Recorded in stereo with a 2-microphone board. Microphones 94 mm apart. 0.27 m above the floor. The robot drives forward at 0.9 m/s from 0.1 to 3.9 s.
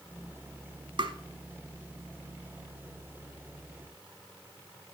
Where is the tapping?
65° right (ahead or behind), 0.8 m; by 1.2 s 70° right (ahead or behind), 0.8 m.